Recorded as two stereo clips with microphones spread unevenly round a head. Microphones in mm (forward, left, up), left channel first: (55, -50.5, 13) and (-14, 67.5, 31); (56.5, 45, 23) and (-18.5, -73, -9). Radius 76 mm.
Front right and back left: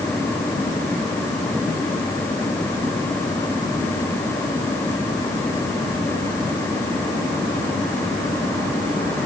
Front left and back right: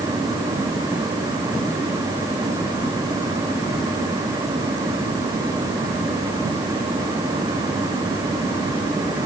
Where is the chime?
I don't hear a chime.